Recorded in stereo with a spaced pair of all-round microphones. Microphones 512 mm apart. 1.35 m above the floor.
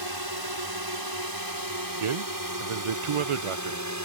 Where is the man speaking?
75° right (ahead or behind).